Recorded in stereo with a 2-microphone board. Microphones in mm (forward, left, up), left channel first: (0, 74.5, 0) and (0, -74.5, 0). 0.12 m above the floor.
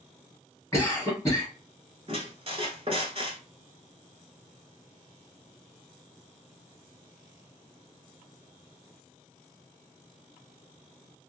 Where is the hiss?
No hiss in this recording.